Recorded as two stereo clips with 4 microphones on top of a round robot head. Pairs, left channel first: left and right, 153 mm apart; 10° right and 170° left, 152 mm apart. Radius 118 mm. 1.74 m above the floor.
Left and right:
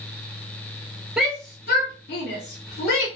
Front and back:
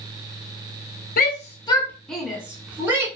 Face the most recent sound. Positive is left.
turn(degrees=95)